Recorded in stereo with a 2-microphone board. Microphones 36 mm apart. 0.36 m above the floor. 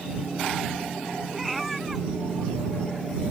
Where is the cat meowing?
Centre (ahead or behind).